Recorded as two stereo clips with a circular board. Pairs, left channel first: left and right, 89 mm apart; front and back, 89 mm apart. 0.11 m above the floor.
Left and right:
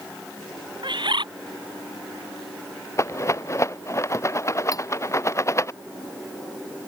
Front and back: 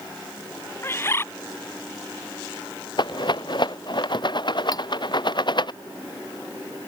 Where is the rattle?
35° left.